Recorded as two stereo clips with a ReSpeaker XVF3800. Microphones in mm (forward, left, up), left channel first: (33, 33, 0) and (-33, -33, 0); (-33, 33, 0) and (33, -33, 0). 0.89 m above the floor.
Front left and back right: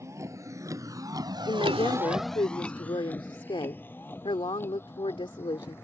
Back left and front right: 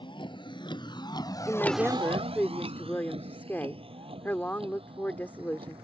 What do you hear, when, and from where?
0.0 s a vehicle: 165° left; by 5.8 s 20° right
1.5 s a woman speaking: 65° left